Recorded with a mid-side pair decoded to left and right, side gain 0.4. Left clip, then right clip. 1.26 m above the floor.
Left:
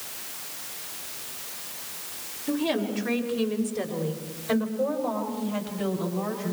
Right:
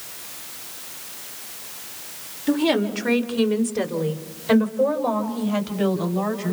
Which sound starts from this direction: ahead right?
A woman speaking, at 2.5 s.